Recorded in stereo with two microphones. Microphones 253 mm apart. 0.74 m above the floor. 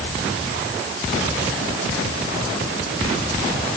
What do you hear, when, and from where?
Only background noise.